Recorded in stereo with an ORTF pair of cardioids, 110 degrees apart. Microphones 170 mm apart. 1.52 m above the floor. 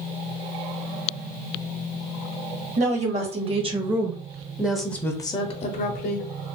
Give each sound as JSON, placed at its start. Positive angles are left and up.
{"t": 2.8, "sound": "a woman speaking", "azimuth_deg": -40, "distance_m": 1.4}